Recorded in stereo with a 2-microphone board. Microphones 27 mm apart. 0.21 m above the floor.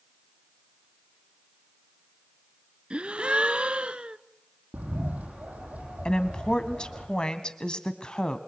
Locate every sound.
2.9 s a gasp: 50° right (ahead or behind), 0.8 m
4.7 s a bird: 80° right, 8 m
6.0 s a woman speaking: 30° left (ahead or behind), 1.3 m